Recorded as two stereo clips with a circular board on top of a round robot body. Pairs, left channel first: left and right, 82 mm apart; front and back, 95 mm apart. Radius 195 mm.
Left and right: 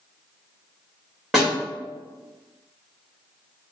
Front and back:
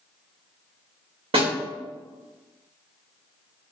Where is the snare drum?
175° right, 1.9 m.